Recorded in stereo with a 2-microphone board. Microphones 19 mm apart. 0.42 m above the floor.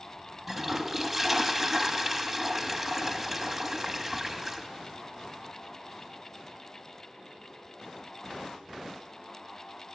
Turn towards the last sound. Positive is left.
turn(degrees=-5)  # may be behind; listen again after turning